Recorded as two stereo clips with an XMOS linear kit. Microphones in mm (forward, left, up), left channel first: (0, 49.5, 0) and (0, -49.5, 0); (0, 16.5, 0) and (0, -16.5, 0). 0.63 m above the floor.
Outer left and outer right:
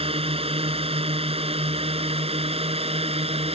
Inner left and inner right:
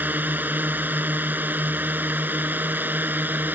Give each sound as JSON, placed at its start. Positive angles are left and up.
{"t": 0.0, "sound": "a drone", "side_deg": -75}